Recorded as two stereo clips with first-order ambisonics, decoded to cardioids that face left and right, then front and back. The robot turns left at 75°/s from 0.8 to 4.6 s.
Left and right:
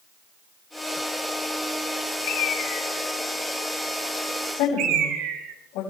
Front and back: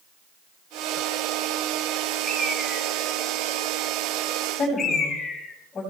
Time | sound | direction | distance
2.2 | a bird | 100° left | 3 m
4.5 | a woman speaking | 70° left | 5 m